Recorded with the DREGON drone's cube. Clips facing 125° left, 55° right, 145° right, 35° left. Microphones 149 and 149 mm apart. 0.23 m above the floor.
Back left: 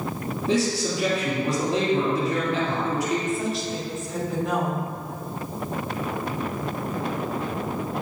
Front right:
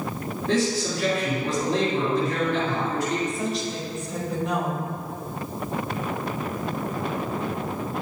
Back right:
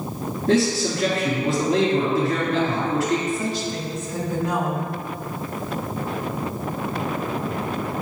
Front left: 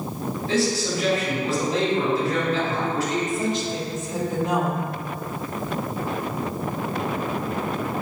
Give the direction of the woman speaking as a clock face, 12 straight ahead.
11 o'clock.